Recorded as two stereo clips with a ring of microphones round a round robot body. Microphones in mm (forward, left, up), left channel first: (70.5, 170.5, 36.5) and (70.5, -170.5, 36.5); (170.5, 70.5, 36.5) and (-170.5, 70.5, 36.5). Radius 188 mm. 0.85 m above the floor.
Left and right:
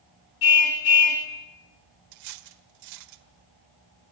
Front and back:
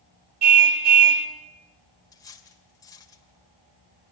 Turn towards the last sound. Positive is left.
turn(degrees=-80)